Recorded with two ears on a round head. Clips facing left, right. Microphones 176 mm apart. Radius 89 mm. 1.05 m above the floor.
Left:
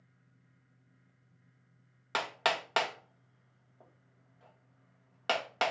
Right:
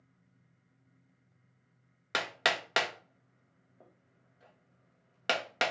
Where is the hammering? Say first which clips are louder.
Left 1 dB; 20° right (ahead or behind), 0.7 m.